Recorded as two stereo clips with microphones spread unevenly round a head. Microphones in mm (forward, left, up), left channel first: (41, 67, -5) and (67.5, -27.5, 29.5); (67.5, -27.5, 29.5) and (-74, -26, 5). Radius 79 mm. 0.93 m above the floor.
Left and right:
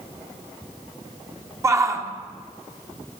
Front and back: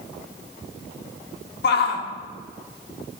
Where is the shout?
10° right, 1.9 m.